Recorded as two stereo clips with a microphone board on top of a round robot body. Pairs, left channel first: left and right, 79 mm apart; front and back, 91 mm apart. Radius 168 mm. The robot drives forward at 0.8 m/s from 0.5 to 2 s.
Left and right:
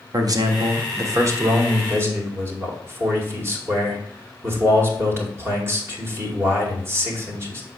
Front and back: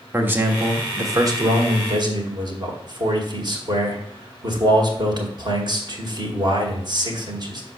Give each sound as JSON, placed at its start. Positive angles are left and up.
{"t": 0.1, "sound": "a man speaking", "azimuth_deg": -115, "distance_m": 1.6}